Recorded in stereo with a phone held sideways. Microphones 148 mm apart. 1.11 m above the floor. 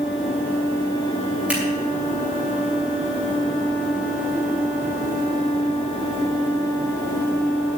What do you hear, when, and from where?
1.5 s scissors: 10° right (ahead or behind), 6.5 m